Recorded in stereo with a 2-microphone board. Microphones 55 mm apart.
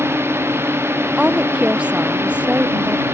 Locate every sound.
0.0 s a drone: 50° right (ahead or behind)
1.2 s a woman speaking: 20° right (ahead or behind)